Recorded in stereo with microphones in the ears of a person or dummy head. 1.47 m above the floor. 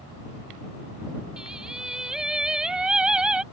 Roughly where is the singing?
Centre.